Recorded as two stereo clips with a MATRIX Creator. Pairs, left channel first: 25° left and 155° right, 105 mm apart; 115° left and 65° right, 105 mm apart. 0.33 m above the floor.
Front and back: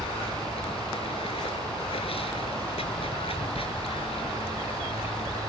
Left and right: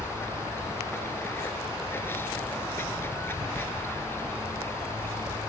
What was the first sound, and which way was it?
Running water, 45° left.